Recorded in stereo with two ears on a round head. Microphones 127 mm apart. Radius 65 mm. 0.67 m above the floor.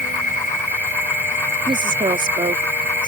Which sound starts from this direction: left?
An insect, at 0.0 s.